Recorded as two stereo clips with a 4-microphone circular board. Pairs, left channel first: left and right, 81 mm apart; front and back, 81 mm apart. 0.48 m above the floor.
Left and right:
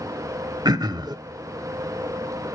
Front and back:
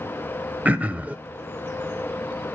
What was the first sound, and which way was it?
Throat clearing, 110° right.